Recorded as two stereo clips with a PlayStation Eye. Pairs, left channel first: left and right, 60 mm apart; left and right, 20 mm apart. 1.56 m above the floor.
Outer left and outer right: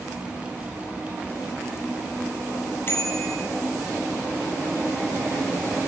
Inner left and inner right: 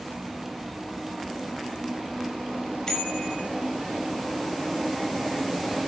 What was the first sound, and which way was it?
A bicycle bell, 40° left (ahead or behind).